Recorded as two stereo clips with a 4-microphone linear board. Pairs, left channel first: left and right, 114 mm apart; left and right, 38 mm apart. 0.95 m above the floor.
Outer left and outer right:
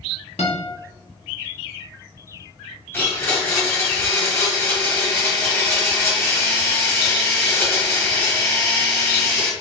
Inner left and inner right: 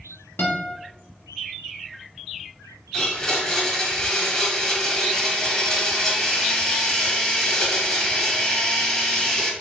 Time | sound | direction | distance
0.4 | a guitar | 75° left (ahead or behind) | 1.2 m
2.9 | a blender | 20° left (ahead or behind) | 1.3 m